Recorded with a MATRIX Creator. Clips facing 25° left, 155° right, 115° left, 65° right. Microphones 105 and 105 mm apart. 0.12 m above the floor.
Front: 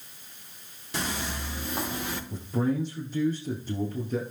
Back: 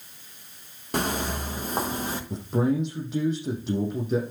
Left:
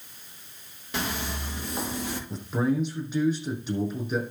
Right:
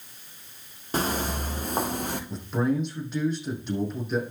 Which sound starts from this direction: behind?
A man speaking, at 2.3 s.